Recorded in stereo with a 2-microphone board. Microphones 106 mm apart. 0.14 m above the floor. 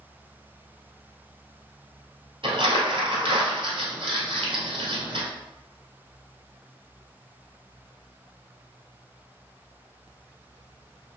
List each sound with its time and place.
2.4 s crumpling: 60° right (ahead or behind), 1.9 m